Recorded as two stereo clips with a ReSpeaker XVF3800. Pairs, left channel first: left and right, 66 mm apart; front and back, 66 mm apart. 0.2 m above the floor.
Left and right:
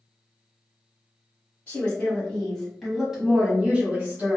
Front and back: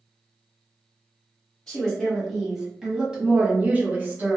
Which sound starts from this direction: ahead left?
A woman speaking, at 1.7 s.